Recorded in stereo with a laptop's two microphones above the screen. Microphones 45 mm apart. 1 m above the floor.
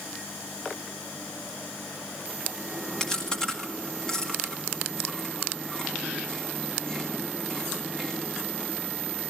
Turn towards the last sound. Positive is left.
turn(degrees=15)  # may be behind; listen again after turning